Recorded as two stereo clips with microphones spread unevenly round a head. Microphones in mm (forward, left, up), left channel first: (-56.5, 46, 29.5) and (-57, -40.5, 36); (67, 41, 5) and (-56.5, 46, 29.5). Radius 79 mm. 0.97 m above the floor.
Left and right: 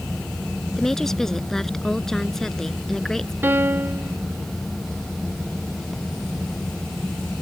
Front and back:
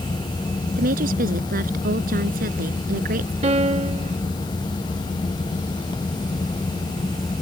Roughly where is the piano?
Behind right.